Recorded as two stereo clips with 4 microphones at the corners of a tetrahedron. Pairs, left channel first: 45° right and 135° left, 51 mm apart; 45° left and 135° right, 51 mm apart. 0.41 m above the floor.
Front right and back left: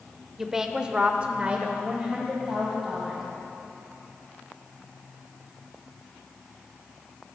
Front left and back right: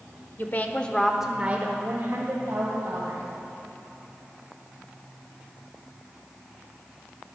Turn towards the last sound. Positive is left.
turn(degrees=-155)